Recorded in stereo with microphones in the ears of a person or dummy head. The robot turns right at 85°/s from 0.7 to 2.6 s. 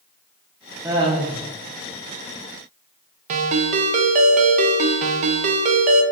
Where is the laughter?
170° right, 0.9 m; by 1.4 s 120° right, 0.9 m.